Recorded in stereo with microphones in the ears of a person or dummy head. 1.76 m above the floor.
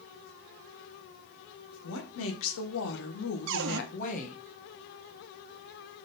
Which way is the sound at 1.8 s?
75° left (ahead or behind).